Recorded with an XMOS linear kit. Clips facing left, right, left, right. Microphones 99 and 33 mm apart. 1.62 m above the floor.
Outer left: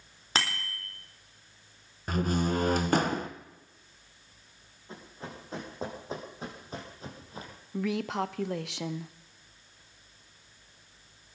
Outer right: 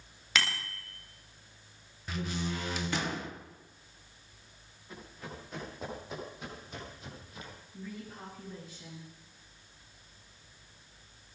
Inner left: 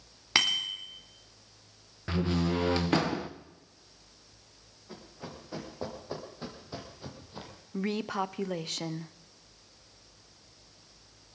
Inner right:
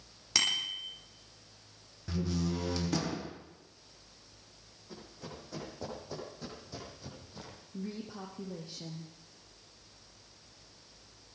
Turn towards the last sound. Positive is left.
turn(degrees=80)